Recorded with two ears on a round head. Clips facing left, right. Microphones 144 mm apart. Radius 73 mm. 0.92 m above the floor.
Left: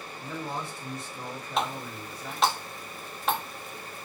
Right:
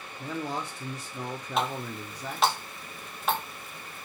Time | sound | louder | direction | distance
0.2 | a man speaking | right 2 dB | 55° right (ahead or behind) | 0.8 m
1.6 | a running tap | right 1 dB | centre (ahead or behind) | 0.7 m